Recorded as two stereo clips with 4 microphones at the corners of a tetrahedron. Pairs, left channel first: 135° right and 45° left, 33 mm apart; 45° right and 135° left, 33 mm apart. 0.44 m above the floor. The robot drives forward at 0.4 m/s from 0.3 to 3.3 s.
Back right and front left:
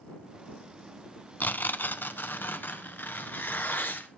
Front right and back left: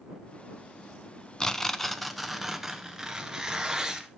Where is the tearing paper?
115° right, 0.6 m; by 4.1 s 150° right, 1.2 m.